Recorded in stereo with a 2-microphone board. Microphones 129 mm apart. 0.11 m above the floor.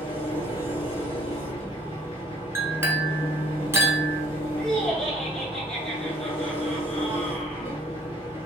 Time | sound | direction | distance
0.0 | an engine running | 45° left (ahead or behind) | 1.6 m
2.5 | a clink | 20° right (ahead or behind) | 0.7 m
4.6 | laughter | 5° left (ahead or behind) | 1.3 m